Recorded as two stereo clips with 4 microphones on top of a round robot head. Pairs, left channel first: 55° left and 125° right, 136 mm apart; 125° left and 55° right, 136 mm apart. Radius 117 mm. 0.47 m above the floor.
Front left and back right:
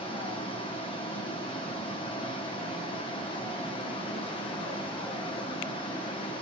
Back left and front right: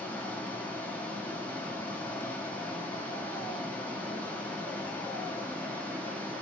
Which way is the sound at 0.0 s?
55° left.